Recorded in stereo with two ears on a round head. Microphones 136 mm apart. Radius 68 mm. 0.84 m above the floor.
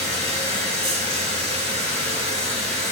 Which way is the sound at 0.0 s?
45° right (ahead or behind).